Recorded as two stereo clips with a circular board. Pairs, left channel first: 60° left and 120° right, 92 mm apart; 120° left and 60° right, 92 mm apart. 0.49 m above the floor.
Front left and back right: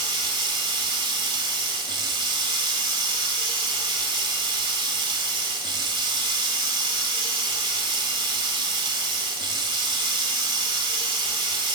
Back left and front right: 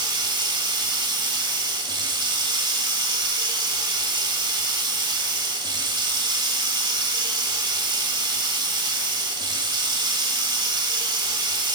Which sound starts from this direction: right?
Running water, at 0.0 s.